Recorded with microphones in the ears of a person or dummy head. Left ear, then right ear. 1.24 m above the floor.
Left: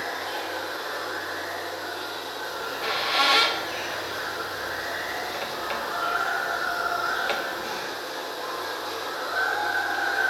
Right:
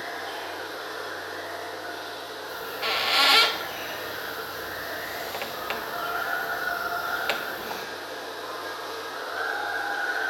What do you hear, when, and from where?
0.0 s running water: 15° left (ahead or behind), 1.5 m
2.5 s a squeak: 15° right (ahead or behind), 0.7 m